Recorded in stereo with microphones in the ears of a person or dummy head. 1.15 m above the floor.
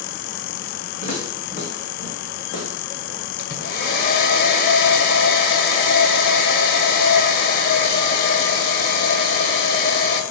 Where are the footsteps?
40° left (ahead or behind), 5 m; by 3.6 s 25° left (ahead or behind), 2.5 m.